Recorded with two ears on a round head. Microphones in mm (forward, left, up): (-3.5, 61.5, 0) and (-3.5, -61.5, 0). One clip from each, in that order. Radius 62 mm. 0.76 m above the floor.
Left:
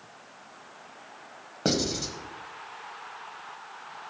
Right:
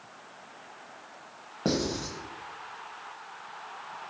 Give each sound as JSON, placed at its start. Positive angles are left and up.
{"t": 1.6, "sound": "writing", "side_deg": 55, "distance_m": 1.3}